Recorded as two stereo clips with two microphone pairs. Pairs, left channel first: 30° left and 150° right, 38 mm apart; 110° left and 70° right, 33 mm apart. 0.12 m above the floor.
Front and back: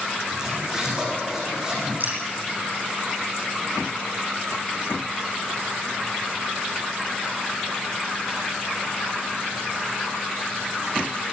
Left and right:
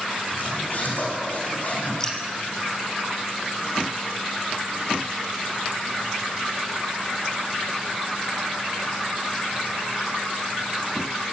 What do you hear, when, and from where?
0.3 s a zipper: 140° left, 8 m
2.0 s dripping: straight behind, 3 m